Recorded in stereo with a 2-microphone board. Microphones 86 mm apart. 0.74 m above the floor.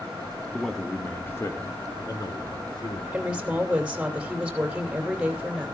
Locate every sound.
0.5 s a man speaking: 5° right (ahead or behind), 1.1 m; by 3.0 s 55° left (ahead or behind), 2.5 m
3.1 s a woman speaking: 15° right (ahead or behind), 2.5 m